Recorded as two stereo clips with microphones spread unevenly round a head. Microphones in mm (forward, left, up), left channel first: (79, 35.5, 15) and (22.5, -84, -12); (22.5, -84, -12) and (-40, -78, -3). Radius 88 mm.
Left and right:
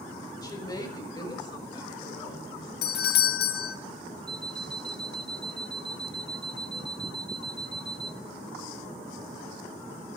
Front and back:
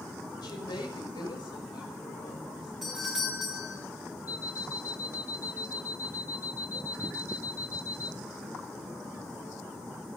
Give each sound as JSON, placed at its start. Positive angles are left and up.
{"t": 0.4, "sound": "a woman speaking", "azimuth_deg": 5, "distance_m": 5.0}
{"t": 2.8, "sound": "a doorbell", "azimuth_deg": 85, "distance_m": 1.0}
{"t": 4.3, "sound": "an alarm clock", "azimuth_deg": -15, "distance_m": 1.0}